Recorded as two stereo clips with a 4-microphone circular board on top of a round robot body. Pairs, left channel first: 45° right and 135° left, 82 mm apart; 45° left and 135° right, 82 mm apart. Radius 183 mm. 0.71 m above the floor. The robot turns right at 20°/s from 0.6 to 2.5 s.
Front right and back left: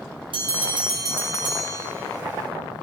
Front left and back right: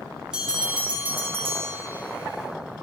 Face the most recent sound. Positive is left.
turn(degrees=180)